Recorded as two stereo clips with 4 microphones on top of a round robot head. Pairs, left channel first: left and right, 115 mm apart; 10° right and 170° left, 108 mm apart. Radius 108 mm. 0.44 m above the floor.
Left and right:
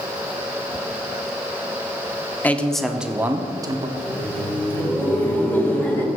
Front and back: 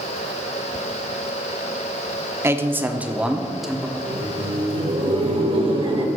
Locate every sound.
2.4 s a man speaking: 145° left, 0.9 m; by 3.9 s 100° right, 1.0 m
4.0 s laughter: 160° left, 1.9 m